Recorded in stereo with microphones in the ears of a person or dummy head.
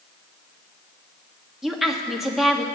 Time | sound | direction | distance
1.6 | a woman speaking | 5° right (ahead or behind) | 0.9 m